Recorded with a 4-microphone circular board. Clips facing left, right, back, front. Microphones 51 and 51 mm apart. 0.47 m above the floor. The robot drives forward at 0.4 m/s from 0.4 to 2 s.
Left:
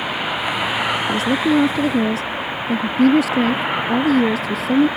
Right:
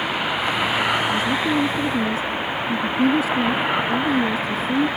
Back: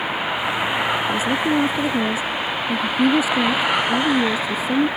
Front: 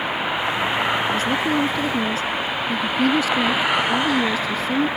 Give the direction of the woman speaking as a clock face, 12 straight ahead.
9 o'clock.